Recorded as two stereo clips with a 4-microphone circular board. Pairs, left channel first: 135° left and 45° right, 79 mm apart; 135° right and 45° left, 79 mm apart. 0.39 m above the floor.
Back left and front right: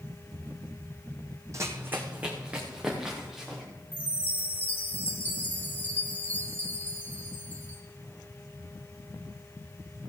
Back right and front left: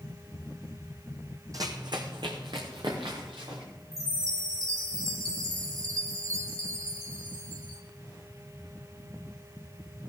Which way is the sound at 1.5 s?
5° left.